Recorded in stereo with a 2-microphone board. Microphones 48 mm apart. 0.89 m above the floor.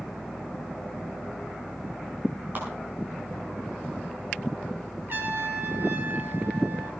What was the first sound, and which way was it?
A clap, 40° right (ahead or behind).